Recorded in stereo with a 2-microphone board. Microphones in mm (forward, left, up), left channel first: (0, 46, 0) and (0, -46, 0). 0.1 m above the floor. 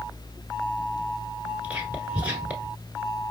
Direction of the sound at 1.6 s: 15° right (ahead or behind).